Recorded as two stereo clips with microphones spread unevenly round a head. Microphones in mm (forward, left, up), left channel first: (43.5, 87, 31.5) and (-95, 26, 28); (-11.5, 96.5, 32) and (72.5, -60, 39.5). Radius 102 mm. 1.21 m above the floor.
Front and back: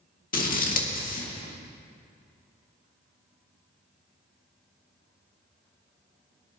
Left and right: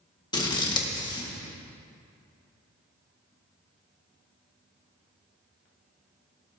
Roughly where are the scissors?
Ahead left.